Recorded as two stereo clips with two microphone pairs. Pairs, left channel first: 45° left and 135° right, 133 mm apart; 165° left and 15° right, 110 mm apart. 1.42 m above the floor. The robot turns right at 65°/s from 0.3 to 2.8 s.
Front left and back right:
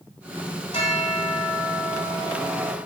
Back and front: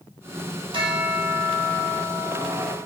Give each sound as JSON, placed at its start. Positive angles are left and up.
{"t": 0.7, "sound": "a bell", "azimuth_deg": 10, "distance_m": 1.8}